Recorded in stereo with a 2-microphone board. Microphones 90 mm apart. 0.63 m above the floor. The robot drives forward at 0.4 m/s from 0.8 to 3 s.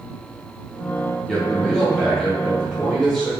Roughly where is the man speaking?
Centre.